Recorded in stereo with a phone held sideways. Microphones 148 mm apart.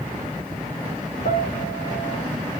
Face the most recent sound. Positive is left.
turn(degrees=80)